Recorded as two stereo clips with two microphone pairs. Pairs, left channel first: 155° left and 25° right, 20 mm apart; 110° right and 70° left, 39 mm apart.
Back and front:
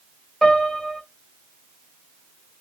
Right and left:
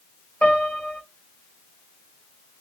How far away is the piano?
About 1.4 m.